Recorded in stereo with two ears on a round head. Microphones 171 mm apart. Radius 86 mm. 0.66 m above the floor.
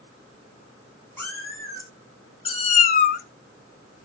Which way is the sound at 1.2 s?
10° left (ahead or behind).